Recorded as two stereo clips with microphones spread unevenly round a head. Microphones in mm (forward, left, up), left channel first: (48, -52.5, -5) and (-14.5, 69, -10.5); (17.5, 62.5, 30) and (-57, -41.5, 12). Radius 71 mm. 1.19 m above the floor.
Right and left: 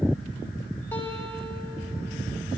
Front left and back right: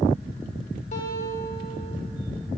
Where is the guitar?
10° left, 4 m.